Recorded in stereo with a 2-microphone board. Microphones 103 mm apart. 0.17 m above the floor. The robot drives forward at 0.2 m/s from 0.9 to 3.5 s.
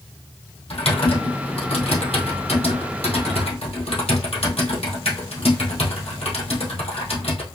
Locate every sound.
0.7 s typing on a keyboard: 70° left (ahead or behind), 2.5 m; by 7.4 s 80° left, 2 m